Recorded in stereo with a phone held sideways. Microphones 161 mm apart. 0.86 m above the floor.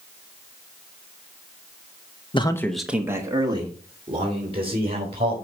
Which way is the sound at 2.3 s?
30° left (ahead or behind).